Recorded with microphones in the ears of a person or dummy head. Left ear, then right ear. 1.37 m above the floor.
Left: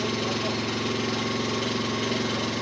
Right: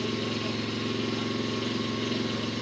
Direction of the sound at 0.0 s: 30° left (ahead or behind).